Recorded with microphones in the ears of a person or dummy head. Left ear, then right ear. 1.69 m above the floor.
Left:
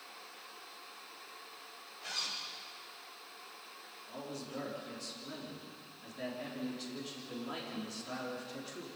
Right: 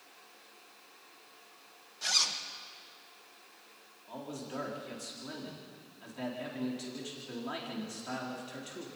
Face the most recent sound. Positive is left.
turn(degrees=-30)  # may be behind; listen again after turning